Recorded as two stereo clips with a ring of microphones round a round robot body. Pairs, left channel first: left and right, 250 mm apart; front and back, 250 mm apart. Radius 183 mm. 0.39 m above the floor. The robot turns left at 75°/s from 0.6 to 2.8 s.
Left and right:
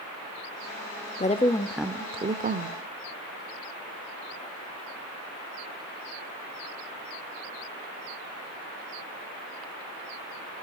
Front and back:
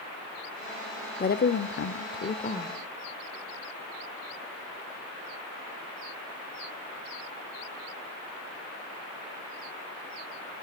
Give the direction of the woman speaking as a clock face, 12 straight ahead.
11 o'clock.